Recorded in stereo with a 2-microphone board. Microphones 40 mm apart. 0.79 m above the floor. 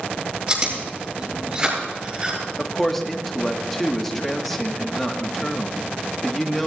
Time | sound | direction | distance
0.5 | chewing | 30° right (ahead or behind) | 7.5 m
2.6 | a man speaking | 5° left (ahead or behind) | 1.5 m